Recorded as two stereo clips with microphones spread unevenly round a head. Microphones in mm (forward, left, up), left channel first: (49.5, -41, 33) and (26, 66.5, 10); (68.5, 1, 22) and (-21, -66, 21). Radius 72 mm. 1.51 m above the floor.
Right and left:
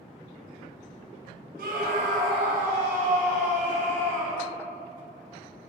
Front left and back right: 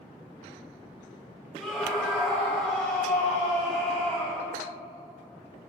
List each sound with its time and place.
1.6 s a scream: 125° left, 1.3 m; by 4.5 s 120° left, 3.5 m